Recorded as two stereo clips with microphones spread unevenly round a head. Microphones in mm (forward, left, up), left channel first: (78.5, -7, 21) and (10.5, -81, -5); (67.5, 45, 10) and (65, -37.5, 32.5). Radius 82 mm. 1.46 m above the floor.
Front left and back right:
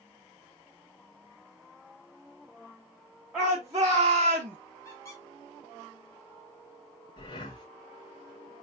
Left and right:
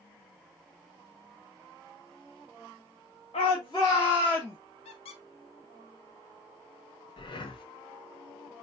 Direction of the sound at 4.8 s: 110° left.